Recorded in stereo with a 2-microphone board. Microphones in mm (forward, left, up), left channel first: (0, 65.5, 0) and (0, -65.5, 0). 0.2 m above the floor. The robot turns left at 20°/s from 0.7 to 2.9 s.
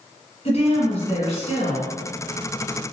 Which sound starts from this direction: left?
A woman speaking, at 0.5 s.